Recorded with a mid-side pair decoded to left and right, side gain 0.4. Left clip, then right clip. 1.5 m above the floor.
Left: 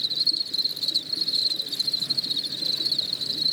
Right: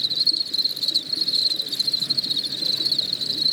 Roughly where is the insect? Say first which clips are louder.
Right 3 dB; ahead right.